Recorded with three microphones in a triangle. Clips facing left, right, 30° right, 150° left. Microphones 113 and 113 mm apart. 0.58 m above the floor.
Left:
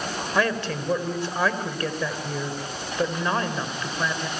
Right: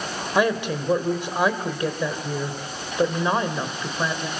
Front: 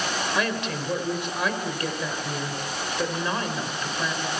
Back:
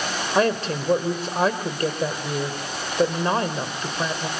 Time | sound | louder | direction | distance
0.3 | a woman speaking | right 4 dB, back 6 dB | 160° right | 2.5 m